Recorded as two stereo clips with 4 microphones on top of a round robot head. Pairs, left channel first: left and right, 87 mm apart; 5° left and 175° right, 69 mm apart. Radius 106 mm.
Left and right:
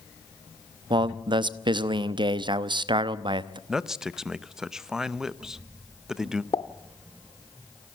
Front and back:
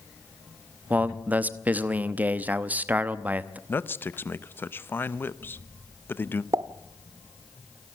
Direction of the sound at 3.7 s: 10° right.